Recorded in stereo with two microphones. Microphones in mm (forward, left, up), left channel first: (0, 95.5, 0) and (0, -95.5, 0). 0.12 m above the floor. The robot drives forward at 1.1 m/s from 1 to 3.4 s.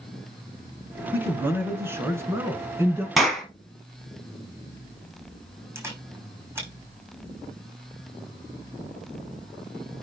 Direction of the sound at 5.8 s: 15° right (ahead or behind).